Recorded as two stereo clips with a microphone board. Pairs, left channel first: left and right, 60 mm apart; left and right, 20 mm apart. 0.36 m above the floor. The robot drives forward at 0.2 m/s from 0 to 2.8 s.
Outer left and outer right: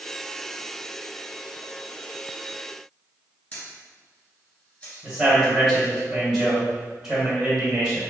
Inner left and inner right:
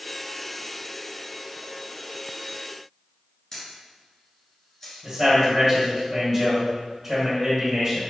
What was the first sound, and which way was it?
A camera shutter, 30° left (ahead or behind).